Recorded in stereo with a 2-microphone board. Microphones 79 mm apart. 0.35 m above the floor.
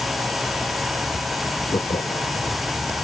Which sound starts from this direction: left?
Laughter, at 1.7 s.